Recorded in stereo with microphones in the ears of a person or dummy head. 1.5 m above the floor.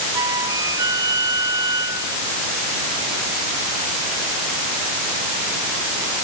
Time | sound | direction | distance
0.1 | a flute | 15° right (ahead or behind) | ?